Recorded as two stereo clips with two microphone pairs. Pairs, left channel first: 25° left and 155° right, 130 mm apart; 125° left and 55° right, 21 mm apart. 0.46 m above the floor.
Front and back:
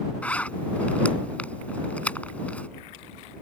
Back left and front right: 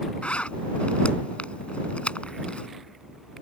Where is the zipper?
105° left.